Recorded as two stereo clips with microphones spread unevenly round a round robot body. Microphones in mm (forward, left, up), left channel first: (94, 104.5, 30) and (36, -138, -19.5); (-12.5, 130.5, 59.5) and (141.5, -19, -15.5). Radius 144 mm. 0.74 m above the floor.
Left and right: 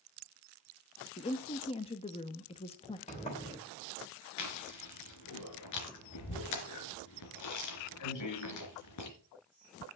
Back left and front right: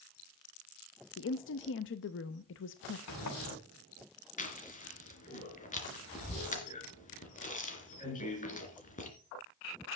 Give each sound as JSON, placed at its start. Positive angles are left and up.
{"t": 1.2, "sound": "a woman speaking", "azimuth_deg": 150, "distance_m": 0.7}
{"t": 3.1, "sound": "a sliding door", "azimuth_deg": 150, "distance_m": 3.0}
{"t": 4.4, "sound": "chewing", "azimuth_deg": 85, "distance_m": 3.0}